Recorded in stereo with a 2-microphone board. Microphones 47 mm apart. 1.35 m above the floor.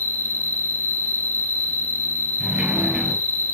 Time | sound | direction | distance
0.0 | an insect | 50° left (ahead or behind) | 1.5 m
2.4 | a sliding door | 15° right (ahead or behind) | 6 m